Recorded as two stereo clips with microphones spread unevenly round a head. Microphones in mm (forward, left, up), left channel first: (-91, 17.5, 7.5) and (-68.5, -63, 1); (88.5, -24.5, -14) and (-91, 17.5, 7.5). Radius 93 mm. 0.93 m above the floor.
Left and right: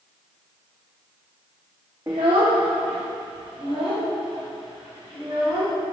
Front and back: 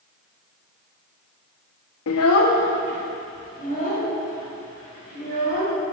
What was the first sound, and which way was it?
A child speaking, straight ahead.